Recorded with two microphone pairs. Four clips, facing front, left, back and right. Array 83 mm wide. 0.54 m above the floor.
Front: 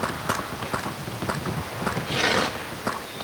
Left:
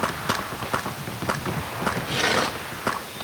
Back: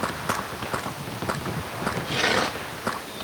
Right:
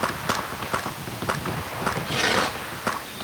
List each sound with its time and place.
Only background noise.